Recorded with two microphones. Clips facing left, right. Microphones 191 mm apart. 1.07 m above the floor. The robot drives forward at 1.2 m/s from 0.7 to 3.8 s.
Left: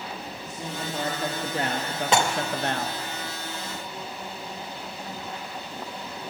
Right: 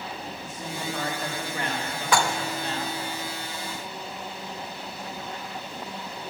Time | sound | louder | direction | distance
0.4 | a man speaking | even | 20° left (ahead or behind) | 2 m
2.1 | dishes clattering | left 1 dB | 20° left (ahead or behind) | 0.7 m